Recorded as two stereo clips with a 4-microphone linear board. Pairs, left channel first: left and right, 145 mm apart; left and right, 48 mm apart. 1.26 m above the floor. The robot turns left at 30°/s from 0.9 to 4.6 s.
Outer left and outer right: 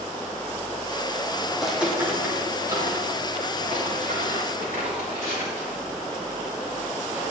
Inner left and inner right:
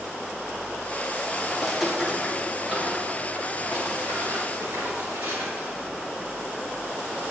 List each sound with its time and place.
1.5 s footsteps: centre (ahead or behind), 2.5 m; by 5.9 s 75° right (ahead or behind), 6 m